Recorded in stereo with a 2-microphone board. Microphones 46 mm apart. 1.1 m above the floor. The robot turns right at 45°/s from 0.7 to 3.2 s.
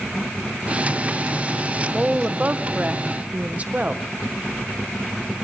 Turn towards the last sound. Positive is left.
turn(degrees=-80)